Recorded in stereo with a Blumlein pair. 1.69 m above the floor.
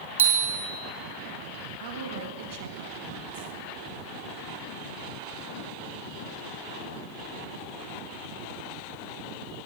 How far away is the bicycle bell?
About 2 m.